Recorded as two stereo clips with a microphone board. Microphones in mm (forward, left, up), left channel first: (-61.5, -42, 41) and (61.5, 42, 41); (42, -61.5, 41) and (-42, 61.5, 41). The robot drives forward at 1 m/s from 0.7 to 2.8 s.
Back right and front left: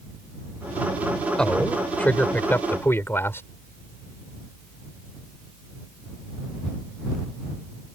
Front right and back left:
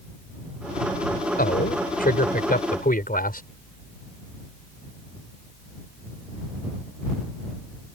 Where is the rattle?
I don't hear a rattle.